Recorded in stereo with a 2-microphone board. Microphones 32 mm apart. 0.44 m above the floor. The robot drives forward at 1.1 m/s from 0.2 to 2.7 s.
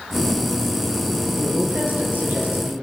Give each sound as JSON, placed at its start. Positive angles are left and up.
{"t": 1.4, "sound": "a woman speaking", "side_deg": -60, "distance_m": 8.0}